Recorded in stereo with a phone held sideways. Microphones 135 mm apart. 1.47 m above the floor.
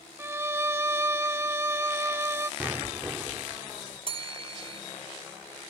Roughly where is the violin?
Centre.